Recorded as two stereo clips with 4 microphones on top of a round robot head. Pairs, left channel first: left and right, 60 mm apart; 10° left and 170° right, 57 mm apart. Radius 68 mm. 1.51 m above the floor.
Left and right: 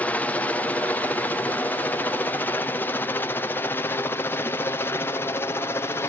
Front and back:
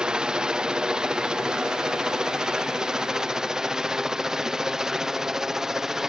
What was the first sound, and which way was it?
A helicopter, 130° left.